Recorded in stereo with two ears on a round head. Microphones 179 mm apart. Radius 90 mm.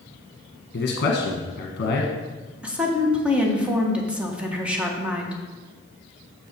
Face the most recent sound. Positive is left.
turn(degrees=-5)  # may be behind; listen again after turning